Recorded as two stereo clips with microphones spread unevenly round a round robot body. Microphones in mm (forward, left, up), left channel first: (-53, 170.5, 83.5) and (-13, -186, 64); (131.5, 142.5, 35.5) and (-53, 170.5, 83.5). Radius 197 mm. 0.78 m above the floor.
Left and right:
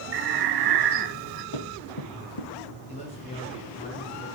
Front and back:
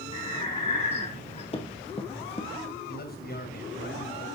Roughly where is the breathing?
Ahead right.